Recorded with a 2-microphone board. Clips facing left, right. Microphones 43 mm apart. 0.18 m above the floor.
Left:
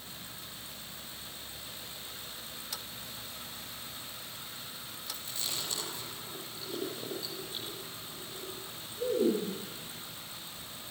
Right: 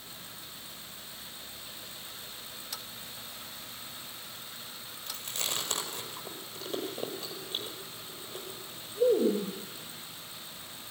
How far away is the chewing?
About 5.5 m.